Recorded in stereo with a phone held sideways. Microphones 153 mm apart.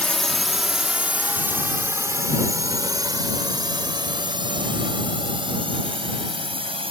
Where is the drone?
5° left (ahead or behind); by 6.9 s 40° right (ahead or behind).